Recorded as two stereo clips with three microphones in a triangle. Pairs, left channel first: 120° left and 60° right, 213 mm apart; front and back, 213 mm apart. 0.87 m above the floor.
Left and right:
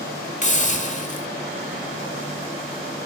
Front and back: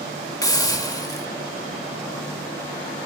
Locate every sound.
0.4 s a hiss: 70° left, 1.9 m